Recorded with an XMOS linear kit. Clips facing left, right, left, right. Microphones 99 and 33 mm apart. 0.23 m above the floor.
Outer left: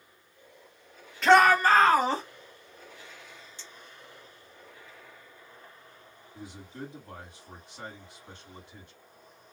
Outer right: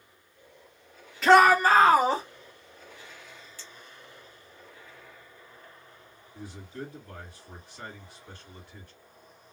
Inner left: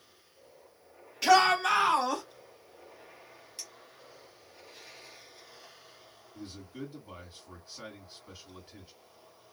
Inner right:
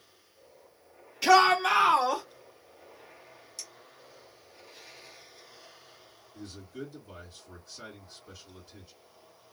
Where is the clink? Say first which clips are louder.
Outer right 1 dB, even; 25° left (ahead or behind), 2.5 m.